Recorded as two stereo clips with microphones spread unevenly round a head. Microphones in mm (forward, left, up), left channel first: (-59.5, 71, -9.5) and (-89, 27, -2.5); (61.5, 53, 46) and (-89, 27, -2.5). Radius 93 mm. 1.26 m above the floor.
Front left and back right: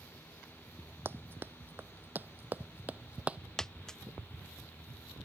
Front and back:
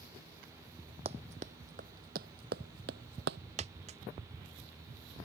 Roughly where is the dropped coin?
Behind left.